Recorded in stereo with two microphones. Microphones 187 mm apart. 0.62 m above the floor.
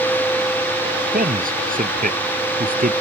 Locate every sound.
1.1 s a man speaking: 50° right (ahead or behind)